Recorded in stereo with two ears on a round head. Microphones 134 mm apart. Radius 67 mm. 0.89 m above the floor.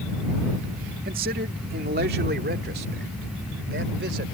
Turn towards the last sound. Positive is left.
turn(degrees=-80)